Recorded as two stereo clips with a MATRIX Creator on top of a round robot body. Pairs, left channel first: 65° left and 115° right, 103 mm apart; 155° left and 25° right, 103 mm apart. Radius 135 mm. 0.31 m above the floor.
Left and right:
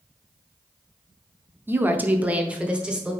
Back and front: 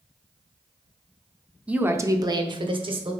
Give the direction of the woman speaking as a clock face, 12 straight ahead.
3 o'clock.